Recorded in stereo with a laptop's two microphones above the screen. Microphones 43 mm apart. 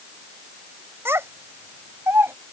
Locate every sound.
1.1 s a child speaking: 90° right; by 2.3 s 80° right